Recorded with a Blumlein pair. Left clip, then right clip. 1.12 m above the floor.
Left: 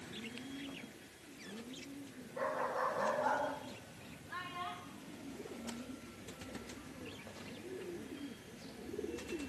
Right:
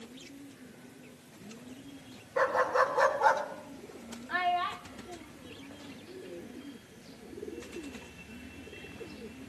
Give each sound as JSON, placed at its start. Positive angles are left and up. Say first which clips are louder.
{"t": 2.4, "sound": "a dog barking", "louder": "right 10 dB", "azimuth_deg": -55, "distance_m": 3.5}
{"t": 4.3, "sound": "a child speaking", "louder": "right 14 dB", "azimuth_deg": -35, "distance_m": 2.0}